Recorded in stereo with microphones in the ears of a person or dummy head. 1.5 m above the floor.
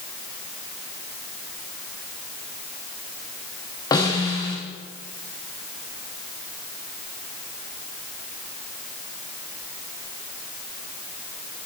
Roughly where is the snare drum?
Left.